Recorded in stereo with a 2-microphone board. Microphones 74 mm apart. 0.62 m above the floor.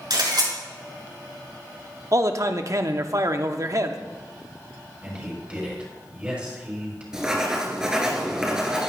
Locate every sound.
0.1 s a camera shutter: 80° right, 5 m
2.1 s a man speaking: 45° right (ahead or behind), 0.9 m
5.0 s a man speaking: 15° right (ahead or behind), 6 m
7.1 s writing: 10° right (ahead or behind), 2 m